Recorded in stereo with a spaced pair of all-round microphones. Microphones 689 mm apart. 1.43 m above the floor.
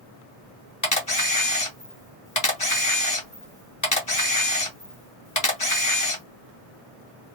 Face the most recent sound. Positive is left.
turn(degrees=25)  # may be behind; listen again after turning